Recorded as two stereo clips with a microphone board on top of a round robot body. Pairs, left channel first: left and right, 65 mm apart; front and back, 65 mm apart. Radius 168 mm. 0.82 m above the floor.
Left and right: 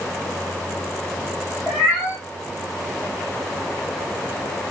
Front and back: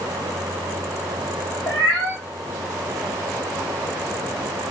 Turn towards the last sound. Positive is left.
turn(degrees=10)